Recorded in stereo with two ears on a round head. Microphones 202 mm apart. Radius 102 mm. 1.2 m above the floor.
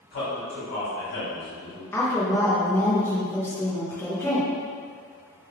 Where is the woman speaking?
10° left (ahead or behind), 0.9 m.